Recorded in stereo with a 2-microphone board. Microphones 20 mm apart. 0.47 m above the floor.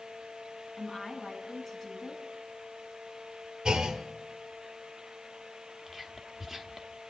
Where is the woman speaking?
5° left (ahead or behind), 4 m.